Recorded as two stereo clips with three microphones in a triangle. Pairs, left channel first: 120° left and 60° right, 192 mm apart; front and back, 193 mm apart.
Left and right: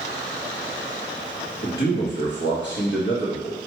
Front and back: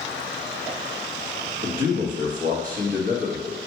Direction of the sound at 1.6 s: 140° left.